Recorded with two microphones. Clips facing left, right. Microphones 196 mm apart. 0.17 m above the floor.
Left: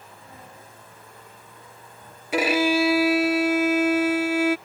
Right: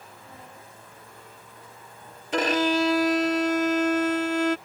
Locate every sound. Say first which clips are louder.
2.3 s a violin: left 2 dB; 10° left (ahead or behind)